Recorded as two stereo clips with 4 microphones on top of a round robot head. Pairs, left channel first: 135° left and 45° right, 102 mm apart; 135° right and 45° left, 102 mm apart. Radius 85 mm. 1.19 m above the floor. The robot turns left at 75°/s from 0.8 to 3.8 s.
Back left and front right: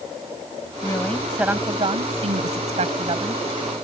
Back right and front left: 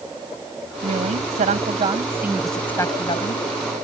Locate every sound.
0.8 s a woman speaking: 80° left; by 3.4 s 115° right